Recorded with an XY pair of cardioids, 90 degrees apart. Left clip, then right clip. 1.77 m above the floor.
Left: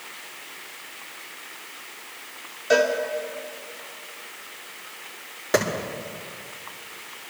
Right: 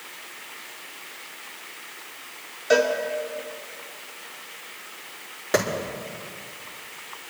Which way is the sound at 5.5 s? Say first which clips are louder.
Left 1 dB; straight ahead.